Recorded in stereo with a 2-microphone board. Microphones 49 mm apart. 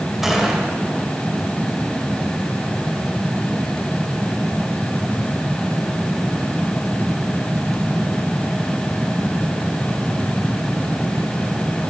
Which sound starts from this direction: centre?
A gunshot, at 0.2 s.